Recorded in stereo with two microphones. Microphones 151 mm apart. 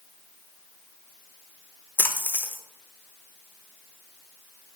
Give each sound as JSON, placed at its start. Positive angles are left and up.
{"t": 2.0, "sound": "a splash", "side_deg": 10, "distance_m": 0.5}